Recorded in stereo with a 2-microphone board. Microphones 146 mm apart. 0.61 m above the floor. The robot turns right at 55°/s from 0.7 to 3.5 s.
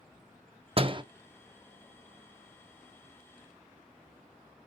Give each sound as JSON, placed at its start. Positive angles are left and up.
{"t": 0.8, "sound": "a door slam", "side_deg": -40, "distance_m": 0.6}